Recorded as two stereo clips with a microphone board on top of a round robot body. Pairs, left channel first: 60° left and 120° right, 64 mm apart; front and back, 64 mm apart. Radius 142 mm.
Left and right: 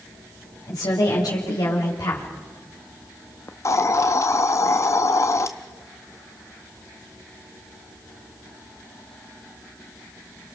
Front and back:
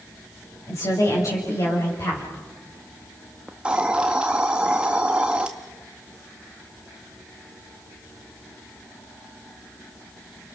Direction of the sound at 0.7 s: 35° left.